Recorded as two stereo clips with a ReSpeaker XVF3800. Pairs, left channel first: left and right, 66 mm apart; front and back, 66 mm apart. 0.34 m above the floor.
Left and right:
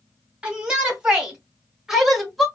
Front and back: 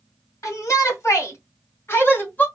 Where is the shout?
20° right, 2 m; by 2.5 s straight ahead, 1.3 m.